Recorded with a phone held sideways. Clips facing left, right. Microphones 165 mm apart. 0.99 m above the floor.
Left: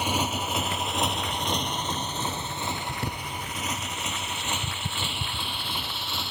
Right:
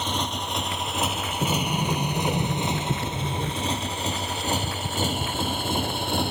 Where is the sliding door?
60° right (ahead or behind).